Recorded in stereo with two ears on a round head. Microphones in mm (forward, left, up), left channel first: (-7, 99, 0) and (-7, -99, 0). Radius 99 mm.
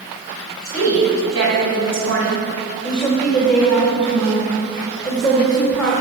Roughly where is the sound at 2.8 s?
Centre.